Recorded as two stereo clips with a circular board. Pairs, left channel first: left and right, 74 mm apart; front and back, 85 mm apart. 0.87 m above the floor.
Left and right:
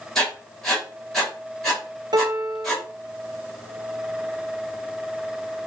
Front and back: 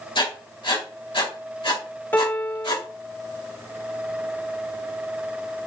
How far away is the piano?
About 0.8 m.